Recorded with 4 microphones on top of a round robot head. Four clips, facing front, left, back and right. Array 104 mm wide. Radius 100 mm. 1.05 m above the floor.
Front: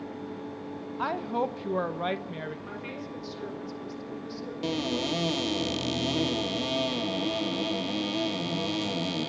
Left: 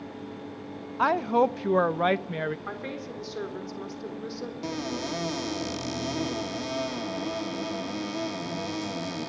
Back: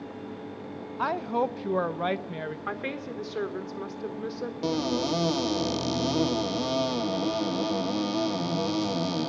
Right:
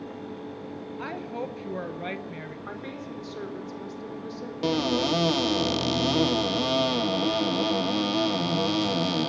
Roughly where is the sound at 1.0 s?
Left.